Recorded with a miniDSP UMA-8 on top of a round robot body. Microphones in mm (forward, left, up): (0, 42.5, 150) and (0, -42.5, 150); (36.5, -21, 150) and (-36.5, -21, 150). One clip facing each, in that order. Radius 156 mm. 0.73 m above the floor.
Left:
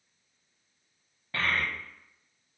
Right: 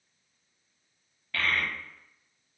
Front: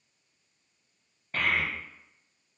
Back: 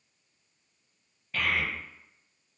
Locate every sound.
1.3 s a child speaking: 35° left, 0.7 m